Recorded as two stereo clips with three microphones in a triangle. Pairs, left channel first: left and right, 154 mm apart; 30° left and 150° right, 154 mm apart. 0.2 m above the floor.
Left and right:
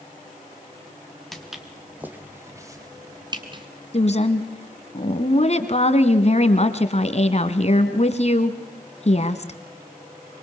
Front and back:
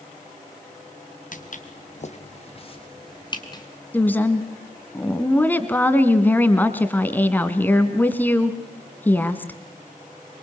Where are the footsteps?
Straight ahead, 2.5 m; by 3.6 s 35° right, 3.5 m.